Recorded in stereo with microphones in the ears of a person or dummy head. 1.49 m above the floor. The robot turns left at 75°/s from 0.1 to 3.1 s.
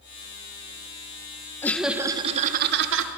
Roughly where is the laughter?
Ahead.